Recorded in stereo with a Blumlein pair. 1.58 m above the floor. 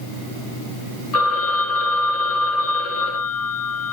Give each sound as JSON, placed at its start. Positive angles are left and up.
{"t": 1.1, "sound": "a phone ringing", "azimuth_deg": 40, "distance_m": 1.4}